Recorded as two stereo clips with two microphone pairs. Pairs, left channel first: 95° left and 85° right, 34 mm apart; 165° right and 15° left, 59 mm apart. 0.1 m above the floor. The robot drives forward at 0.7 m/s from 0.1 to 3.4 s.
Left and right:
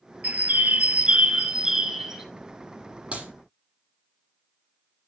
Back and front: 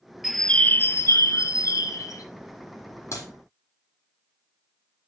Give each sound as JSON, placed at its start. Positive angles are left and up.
{"t": 0.2, "sound": "a bird", "azimuth_deg": -65, "distance_m": 0.5}
{"t": 3.1, "sound": "a clap", "azimuth_deg": -135, "distance_m": 3.5}